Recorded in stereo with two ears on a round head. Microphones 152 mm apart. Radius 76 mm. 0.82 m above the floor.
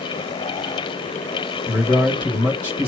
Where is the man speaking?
10° left (ahead or behind), 2 m.